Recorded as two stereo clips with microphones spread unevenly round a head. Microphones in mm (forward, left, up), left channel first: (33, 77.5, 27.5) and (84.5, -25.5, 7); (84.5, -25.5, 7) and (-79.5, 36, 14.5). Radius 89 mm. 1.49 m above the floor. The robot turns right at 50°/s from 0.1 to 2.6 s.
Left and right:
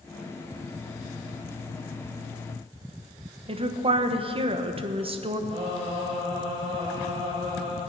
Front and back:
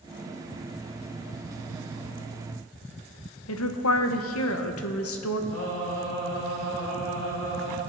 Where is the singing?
25° right, 5.5 m.